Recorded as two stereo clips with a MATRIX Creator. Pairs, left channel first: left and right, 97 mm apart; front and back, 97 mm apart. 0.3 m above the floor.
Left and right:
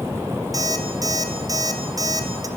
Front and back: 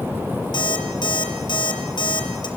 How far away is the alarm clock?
About 4 m.